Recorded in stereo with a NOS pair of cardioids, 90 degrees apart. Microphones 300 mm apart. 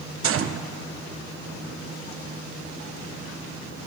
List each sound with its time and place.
0.2 s a gunshot: 45° right, 0.9 m